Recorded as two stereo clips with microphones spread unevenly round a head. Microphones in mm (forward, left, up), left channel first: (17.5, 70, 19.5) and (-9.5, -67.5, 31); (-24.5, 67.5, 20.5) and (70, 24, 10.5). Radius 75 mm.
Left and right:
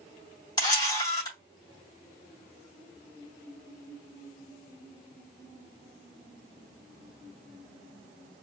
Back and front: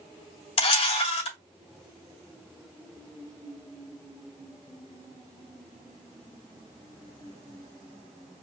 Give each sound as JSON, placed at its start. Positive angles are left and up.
{"t": 0.6, "sound": "a camera shutter", "azimuth_deg": 145, "distance_m": 3.0}